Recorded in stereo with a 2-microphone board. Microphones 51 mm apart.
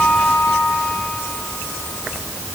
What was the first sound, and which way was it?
Only background noise.